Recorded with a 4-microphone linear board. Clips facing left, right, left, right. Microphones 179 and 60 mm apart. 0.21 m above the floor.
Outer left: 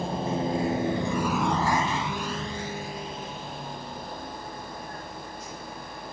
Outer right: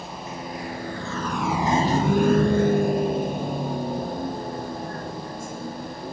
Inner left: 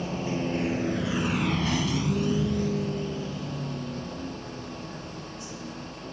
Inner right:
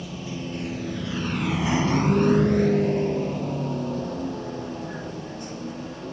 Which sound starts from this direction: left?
A vehicle, at 0.0 s.